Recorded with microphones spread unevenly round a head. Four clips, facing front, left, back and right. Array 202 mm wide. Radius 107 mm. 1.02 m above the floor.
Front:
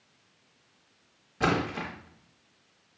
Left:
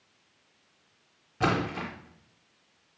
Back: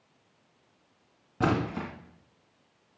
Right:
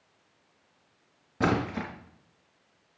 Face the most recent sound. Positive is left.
turn(degrees=-140)